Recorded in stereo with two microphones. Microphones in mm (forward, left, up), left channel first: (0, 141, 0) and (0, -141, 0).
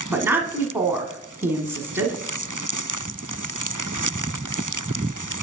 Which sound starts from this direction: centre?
A woman speaking, at 0.1 s.